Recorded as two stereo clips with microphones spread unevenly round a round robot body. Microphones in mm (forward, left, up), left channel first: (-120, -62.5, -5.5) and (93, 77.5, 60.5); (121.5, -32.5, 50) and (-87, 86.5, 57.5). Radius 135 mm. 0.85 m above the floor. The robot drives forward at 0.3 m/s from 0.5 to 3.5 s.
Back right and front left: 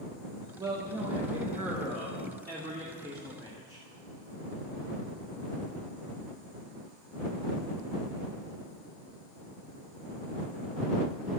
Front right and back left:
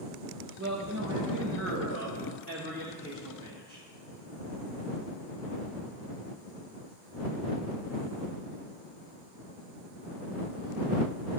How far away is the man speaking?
About 1.1 m.